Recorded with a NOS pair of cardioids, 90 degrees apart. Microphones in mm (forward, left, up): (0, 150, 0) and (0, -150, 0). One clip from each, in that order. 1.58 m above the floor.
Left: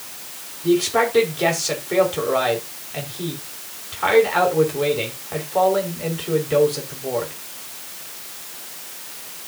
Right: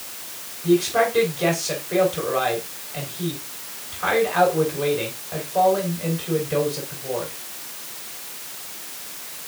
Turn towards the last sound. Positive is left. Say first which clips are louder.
# left 1 dB
turn(degrees=35)